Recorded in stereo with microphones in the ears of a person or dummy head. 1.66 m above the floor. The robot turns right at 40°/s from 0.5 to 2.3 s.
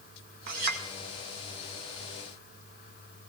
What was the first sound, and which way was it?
A clink, 45° right (ahead or behind).